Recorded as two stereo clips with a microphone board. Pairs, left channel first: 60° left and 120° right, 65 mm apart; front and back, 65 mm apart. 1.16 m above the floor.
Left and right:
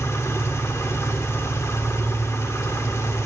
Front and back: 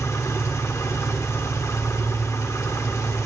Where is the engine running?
25° left, 1.3 m.